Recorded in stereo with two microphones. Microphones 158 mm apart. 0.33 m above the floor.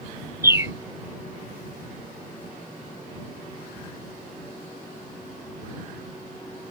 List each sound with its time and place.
0.4 s a bird: 20° right (ahead or behind)